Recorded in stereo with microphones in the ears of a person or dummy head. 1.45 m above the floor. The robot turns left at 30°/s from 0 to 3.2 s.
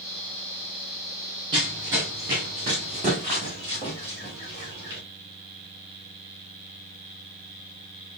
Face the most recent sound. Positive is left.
turn(degrees=-20)  # may be behind; listen again after turning